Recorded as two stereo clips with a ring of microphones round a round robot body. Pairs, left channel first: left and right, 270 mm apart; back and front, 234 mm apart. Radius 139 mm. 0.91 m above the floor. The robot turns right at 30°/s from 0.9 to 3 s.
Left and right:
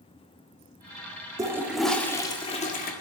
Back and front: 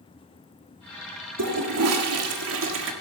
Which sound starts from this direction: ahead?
A toilet flushing, at 1.4 s.